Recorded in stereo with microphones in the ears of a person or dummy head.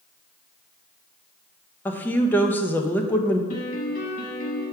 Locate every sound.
1.9 s a woman speaking: 15° left (ahead or behind), 1.0 m
3.5 s a piano: 45° left (ahead or behind), 1.5 m